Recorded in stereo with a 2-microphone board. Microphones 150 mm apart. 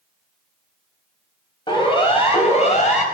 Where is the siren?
35° left (ahead or behind), 4.5 m; by 3.0 s 55° left (ahead or behind), 4 m.